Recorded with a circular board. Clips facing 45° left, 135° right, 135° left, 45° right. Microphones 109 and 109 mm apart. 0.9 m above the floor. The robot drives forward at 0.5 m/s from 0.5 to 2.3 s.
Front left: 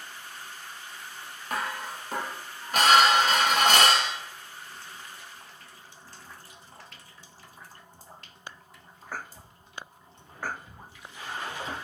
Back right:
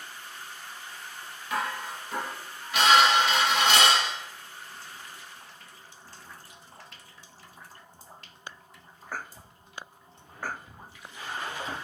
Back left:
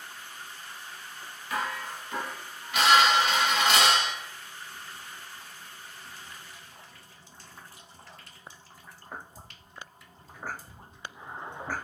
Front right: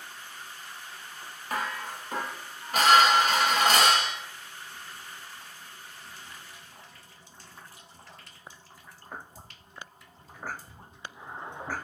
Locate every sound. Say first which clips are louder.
1.5 s dishes clattering: back right 1 dB, even; straight ahead, 0.9 m